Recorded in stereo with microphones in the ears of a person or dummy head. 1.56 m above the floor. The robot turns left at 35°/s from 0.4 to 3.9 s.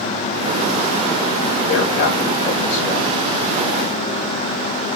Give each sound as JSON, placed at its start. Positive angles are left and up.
{"t": 1.7, "sound": "a man speaking", "azimuth_deg": 75, "distance_m": 2.0}